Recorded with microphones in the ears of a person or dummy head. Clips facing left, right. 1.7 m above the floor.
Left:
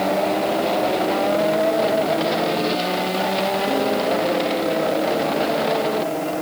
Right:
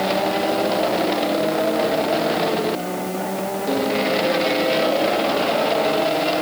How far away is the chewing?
I don't hear chewing.